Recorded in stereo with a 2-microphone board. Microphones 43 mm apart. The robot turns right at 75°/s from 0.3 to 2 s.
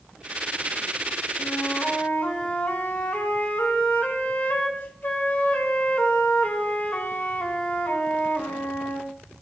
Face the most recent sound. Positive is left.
turn(degrees=120)